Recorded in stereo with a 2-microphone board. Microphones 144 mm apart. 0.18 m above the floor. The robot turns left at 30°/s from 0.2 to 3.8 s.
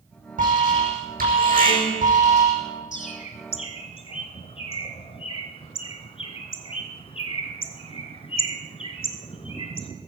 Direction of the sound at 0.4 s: 65° right.